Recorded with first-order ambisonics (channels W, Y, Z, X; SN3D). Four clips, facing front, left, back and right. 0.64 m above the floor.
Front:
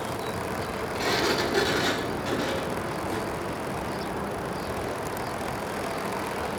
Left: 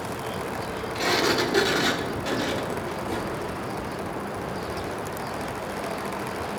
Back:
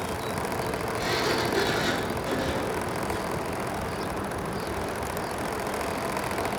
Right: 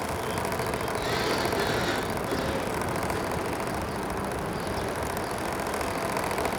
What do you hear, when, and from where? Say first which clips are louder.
0.9 s a sliding door: left 7 dB, front 2 dB; 75° left, 1.4 m